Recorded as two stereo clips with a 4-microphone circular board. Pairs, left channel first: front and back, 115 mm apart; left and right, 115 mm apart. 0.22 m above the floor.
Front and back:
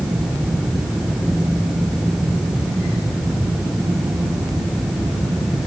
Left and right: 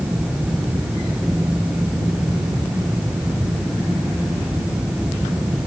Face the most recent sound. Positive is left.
No sound to turn to.